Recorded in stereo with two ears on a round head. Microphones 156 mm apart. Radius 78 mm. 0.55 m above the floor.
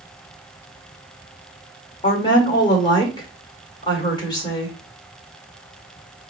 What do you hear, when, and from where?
2.0 s a woman speaking: 25° left (ahead or behind), 1.5 m